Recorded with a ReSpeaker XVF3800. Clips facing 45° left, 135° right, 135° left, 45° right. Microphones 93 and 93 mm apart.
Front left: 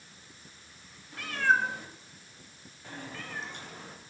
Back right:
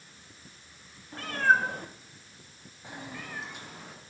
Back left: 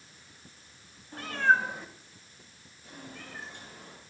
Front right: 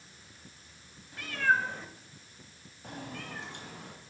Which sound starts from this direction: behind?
A cat meowing, at 1.1 s.